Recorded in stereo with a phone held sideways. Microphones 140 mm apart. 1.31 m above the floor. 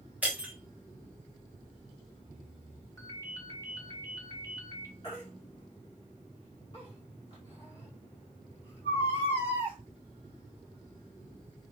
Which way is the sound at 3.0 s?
25° left (ahead or behind).